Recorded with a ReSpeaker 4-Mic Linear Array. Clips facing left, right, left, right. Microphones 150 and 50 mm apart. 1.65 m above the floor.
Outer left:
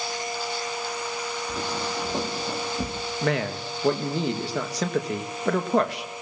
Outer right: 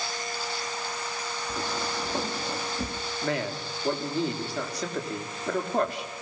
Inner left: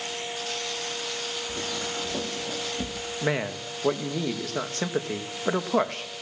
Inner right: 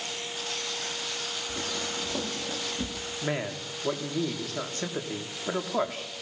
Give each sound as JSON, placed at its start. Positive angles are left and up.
{"t": 1.5, "sound": "footsteps", "side_deg": 25, "distance_m": 4.0}
{"t": 3.2, "sound": "a man speaking", "side_deg": 85, "distance_m": 3.0}